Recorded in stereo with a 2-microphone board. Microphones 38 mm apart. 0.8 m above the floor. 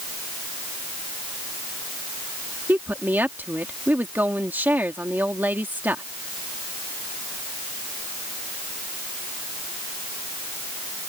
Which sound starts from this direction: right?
A woman speaking, at 2.7 s.